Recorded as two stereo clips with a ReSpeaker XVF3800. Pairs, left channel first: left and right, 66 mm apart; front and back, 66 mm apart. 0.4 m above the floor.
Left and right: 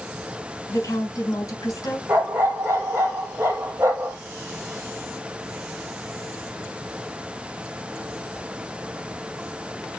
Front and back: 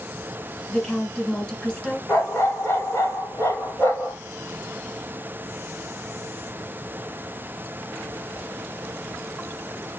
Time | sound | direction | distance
0.7 | a woman speaking | 75° left | 3 m
2.1 | a dog barking | 40° right | 2.5 m